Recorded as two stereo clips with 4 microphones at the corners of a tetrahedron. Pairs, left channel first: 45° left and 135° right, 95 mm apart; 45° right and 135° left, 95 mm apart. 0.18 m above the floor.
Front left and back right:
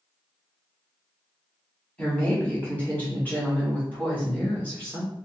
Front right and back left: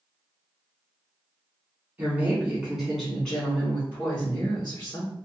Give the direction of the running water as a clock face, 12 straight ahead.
No running water in this recording.